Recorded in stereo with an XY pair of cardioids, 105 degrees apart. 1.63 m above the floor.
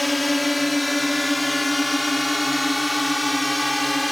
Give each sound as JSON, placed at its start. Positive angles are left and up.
{"t": 0.0, "sound": "a drone", "azimuth_deg": 10}